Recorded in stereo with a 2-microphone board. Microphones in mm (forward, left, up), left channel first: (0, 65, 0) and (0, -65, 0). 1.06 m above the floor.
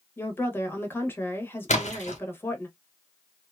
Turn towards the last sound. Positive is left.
turn(degrees=60)  # may be behind; listen again after turning